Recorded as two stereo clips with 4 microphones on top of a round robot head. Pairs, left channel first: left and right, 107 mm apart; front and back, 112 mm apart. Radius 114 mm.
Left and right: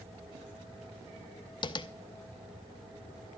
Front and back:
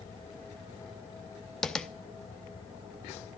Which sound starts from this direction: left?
Tapping, at 1.6 s.